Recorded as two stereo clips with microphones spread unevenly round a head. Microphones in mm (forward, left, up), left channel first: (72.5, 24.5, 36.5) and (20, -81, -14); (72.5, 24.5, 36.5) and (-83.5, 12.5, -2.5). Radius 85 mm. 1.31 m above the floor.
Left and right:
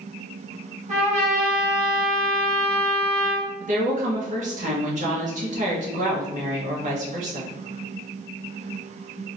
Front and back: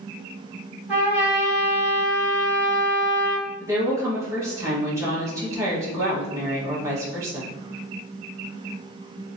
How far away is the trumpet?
About 1.5 m.